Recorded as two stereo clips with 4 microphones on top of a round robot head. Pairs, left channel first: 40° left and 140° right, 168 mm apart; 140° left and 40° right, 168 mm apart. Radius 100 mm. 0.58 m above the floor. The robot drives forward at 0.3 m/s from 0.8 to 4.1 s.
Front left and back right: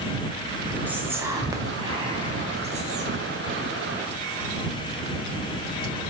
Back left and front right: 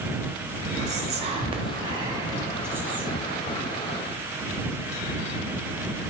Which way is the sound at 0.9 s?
65° right.